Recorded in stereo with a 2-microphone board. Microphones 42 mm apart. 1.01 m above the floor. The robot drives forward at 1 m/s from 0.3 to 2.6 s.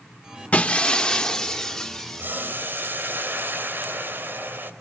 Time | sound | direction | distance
0.5 | breaking glass | 35° left (ahead or behind) | 0.8 m
2.2 | boiling | 50° right (ahead or behind) | 4 m